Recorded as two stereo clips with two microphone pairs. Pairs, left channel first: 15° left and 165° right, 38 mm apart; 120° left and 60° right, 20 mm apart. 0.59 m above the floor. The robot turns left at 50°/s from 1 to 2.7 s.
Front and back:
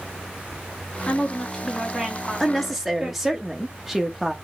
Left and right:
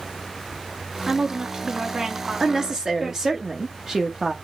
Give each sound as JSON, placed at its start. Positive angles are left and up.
{"t": 1.1, "sound": "a woman speaking", "azimuth_deg": -25, "distance_m": 1.4}
{"t": 2.4, "sound": "a woman speaking", "azimuth_deg": -65, "distance_m": 1.0}